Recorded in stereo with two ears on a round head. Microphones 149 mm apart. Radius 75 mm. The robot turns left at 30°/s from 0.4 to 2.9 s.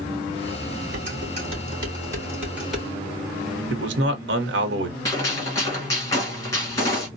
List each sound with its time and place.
0.9 s dishes clattering: 55° right (ahead or behind), 3 m; by 2.9 s centre (ahead or behind), 3 m
3.7 s a man speaking: 70° right (ahead or behind), 0.9 m
5.0 s a gunshot: 20° left (ahead or behind), 1.8 m